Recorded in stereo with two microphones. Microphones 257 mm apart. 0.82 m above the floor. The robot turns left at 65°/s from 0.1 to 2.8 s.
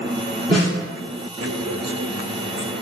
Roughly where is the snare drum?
Right.